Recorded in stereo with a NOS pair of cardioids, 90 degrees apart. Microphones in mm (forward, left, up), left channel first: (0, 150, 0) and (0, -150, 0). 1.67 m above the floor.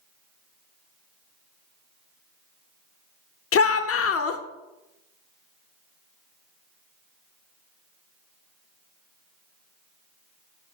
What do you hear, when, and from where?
3.5 s a shout: 50° left, 0.9 m